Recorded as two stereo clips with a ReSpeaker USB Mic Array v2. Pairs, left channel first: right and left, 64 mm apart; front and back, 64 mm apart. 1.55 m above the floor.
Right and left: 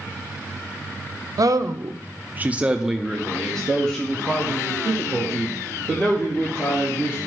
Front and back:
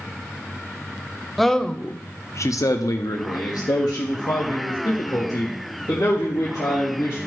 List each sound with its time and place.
1.4 s a man speaking: 90° left, 0.7 m; by 7.2 s 30° right, 3 m